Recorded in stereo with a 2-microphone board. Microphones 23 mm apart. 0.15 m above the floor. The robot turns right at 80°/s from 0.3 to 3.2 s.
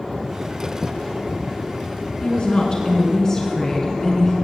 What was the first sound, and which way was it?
A woman speaking, 65° left.